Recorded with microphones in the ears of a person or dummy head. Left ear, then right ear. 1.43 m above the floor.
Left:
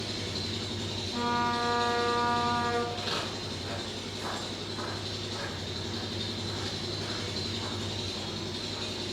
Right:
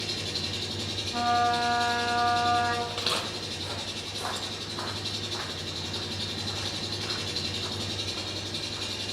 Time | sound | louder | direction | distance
0.0 | an engine running | right 3 dB | 15° right (ahead or behind) | 1.5 m
1.1 | a trumpet | right 5 dB | centre (ahead or behind) | 1.6 m
2.9 | footsteps | right 3 dB | 30° right (ahead or behind) | 1.8 m